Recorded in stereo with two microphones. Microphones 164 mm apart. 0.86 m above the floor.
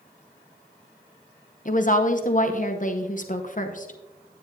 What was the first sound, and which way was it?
A woman speaking, 55° left (ahead or behind).